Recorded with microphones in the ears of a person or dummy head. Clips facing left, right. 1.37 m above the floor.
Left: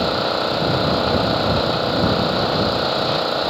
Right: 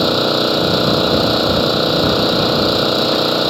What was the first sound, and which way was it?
An engine running, 40° right (ahead or behind).